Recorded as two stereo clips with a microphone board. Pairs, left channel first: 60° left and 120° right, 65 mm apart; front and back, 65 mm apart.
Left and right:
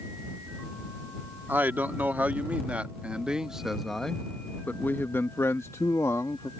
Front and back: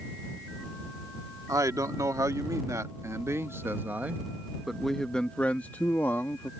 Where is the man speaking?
175° right; by 6.5 s 40° left.